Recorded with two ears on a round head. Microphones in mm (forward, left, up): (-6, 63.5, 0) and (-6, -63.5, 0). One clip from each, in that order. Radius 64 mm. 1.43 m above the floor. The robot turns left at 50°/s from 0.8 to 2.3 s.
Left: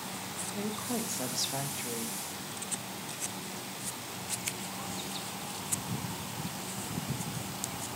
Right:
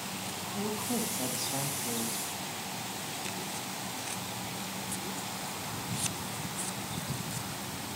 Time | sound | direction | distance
0.6 | a woman speaking | 145° left | 2.5 m